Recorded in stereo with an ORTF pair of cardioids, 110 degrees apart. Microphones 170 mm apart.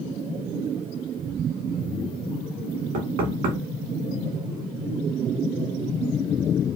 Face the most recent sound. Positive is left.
turn(degrees=-65)